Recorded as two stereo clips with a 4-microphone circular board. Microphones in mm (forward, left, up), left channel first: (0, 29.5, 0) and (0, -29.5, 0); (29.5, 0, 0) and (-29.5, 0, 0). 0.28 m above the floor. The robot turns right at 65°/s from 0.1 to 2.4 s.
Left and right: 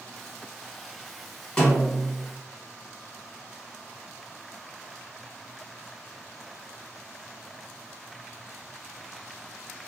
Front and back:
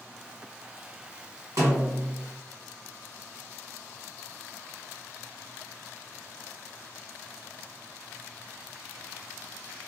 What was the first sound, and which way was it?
A snare drum, 165° left.